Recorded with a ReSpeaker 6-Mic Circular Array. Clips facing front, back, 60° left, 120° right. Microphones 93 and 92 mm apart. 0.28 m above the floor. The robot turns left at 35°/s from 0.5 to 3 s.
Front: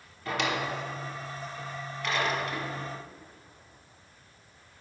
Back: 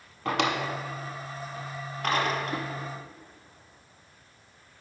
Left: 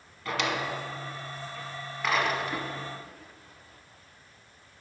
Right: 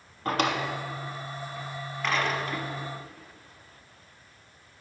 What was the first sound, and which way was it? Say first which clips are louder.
A drawer: back 3 dB, right 3 dB; 160° right.